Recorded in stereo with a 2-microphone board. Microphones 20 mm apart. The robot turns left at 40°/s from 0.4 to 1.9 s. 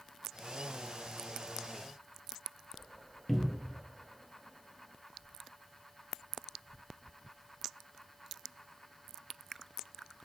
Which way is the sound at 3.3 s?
5° left (ahead or behind).